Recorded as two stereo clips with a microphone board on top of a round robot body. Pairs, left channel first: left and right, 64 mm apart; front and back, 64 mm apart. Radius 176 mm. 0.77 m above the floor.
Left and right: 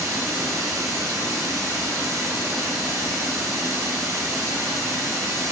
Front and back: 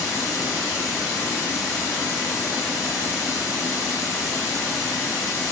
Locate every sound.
0.0 s running water: 40° right, 5.5 m